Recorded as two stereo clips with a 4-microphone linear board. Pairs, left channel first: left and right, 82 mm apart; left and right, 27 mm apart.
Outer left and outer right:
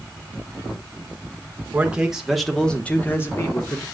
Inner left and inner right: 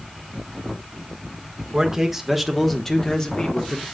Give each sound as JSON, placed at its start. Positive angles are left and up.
{"t": 1.7, "sound": "a man speaking", "side_deg": -15, "distance_m": 1.5}